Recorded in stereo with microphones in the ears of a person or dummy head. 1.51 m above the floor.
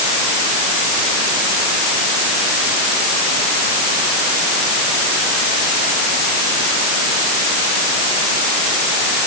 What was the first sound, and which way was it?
Only background noise.